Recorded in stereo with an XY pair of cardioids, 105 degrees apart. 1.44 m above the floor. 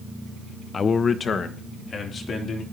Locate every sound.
0.7 s a man speaking: 40° left, 0.7 m; by 2.6 s 50° left, 3.5 m